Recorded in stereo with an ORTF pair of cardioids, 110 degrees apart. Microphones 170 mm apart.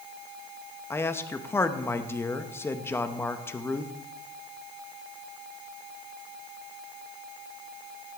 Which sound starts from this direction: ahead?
A man speaking, at 0.9 s.